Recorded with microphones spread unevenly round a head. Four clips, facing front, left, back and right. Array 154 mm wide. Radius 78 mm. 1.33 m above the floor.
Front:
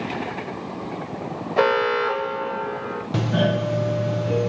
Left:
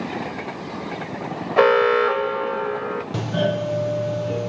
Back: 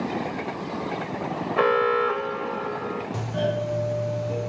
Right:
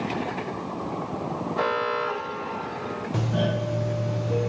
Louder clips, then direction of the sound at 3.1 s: Left 3 dB, front 6 dB; 15° left.